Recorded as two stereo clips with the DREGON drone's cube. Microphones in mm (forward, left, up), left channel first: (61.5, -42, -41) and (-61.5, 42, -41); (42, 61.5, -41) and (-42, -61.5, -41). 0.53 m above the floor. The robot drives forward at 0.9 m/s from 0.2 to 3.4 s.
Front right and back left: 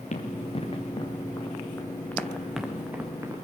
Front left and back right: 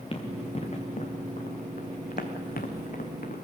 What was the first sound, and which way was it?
Running footsteps, 5° left.